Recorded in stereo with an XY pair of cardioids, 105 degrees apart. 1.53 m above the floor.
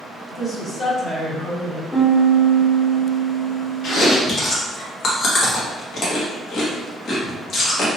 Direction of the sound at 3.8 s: 65° left.